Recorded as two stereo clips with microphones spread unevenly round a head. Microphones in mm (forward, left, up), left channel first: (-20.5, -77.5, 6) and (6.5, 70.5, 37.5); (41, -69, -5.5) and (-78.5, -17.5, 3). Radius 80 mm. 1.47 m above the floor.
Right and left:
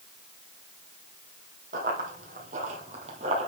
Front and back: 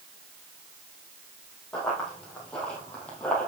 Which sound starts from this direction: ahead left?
Running footsteps, at 1.7 s.